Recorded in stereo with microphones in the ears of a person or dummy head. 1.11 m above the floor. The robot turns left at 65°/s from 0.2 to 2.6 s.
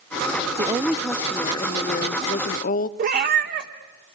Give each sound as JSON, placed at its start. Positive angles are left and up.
{"t": 0.6, "sound": "a woman speaking", "azimuth_deg": -155, "distance_m": 0.7}
{"t": 3.0, "sound": "a cat meowing", "side_deg": -50, "distance_m": 1.4}